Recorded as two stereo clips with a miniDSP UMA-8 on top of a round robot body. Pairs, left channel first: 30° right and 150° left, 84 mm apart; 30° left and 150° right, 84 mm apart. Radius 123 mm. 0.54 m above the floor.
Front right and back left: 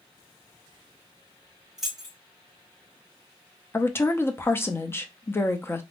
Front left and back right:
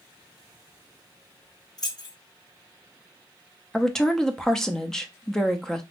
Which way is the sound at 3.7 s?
45° right.